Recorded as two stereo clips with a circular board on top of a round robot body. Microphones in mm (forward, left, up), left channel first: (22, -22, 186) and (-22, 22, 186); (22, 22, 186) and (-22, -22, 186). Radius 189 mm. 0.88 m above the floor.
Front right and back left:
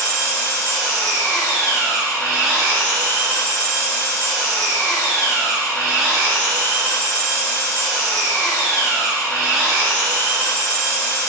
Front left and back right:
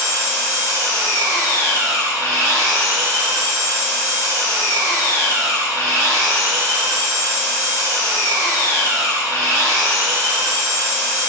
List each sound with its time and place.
0.0 s an engine running: 55° left, 2.0 m